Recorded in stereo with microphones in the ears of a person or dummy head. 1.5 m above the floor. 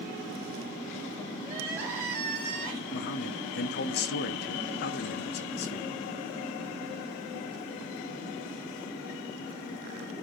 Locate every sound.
1.4 s crying: 10° right (ahead or behind), 3 m
2.9 s a man speaking: 55° left (ahead or behind), 0.7 m